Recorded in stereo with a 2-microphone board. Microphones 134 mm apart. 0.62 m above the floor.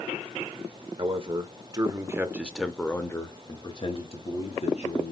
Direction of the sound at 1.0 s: 45° right (ahead or behind).